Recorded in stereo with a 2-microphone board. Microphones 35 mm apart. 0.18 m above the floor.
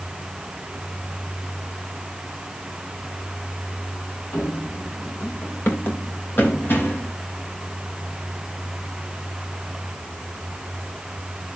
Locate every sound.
4.3 s running footsteps: 70° left (ahead or behind), 2 m; by 7.1 s 60° left (ahead or behind), 3.5 m